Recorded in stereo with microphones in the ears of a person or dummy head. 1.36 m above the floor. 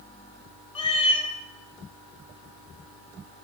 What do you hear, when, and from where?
0.8 s a cat meowing: 30° left (ahead or behind), 1.0 m